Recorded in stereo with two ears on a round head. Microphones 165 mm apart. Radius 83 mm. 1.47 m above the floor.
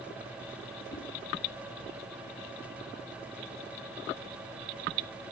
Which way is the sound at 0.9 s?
85° left.